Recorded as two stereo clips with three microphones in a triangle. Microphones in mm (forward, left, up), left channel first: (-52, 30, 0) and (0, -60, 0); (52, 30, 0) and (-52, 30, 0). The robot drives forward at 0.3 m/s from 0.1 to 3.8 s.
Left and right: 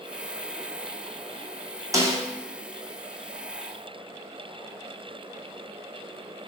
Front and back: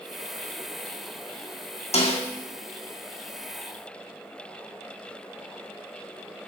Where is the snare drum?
Straight ahead, 1.9 m.